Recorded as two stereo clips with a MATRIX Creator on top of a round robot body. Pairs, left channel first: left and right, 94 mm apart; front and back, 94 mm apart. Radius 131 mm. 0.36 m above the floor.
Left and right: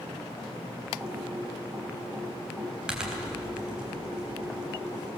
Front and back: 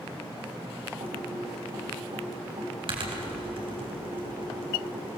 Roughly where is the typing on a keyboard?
Behind.